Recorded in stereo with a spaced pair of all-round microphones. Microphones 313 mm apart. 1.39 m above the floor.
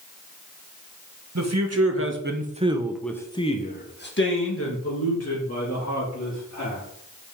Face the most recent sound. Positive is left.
turn(degrees=60)  # may be behind; listen again after turning